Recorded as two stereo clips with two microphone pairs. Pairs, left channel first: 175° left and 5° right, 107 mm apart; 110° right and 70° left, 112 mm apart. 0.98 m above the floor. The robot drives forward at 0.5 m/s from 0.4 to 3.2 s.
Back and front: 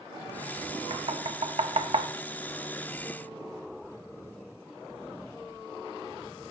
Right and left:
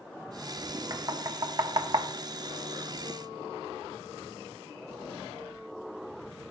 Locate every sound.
0.9 s knocking: 15° left, 1.3 m; by 2.1 s 25° left, 0.7 m